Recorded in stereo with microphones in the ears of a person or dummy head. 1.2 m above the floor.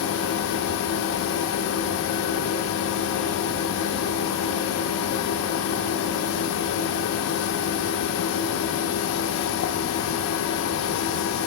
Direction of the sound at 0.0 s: 60° left (ahead or behind).